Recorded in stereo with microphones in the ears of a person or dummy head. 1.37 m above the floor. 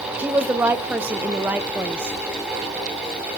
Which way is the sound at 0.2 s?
15° right (ahead or behind).